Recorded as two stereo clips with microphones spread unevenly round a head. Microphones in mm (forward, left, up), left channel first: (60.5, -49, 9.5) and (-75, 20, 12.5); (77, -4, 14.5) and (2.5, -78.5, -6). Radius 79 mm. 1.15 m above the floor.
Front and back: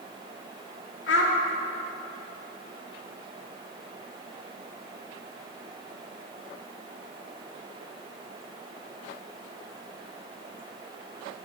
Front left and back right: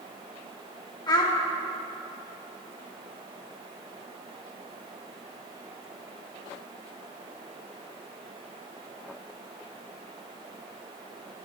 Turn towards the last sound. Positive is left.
turn(degrees=-5)